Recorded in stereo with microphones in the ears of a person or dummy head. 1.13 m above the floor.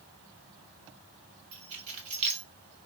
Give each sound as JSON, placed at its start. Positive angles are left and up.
{"t": 1.5, "sound": "keys jangling", "side_deg": -40, "distance_m": 1.4}